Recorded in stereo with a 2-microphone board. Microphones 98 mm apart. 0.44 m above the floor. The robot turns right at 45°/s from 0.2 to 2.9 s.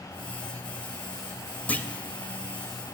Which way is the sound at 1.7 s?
15° left (ahead or behind).